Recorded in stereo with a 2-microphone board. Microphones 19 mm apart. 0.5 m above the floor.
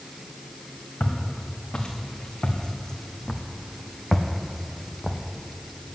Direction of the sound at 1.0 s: 60° left (ahead or behind).